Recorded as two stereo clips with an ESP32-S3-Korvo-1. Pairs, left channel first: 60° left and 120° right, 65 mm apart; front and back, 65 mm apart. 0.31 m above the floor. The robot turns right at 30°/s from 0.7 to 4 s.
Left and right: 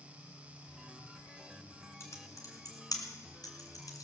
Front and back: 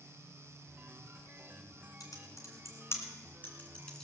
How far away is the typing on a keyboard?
About 2.5 m.